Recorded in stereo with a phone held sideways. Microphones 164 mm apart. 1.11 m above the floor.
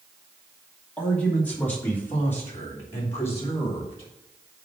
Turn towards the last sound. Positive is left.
turn(degrees=15)  # may be behind; listen again after turning